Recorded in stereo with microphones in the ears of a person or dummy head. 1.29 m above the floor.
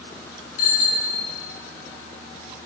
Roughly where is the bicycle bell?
Left.